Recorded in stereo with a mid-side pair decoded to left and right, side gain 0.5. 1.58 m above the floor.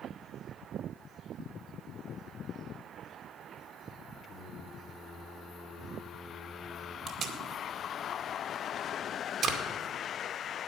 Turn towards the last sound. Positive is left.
turn(degrees=-55)